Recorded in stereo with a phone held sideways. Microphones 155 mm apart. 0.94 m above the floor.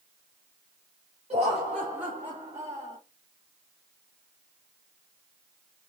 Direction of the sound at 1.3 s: 45° right (ahead or behind).